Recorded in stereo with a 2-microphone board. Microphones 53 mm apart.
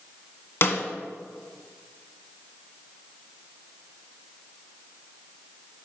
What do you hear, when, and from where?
0.6 s a snare drum: 50° left (ahead or behind), 1.7 m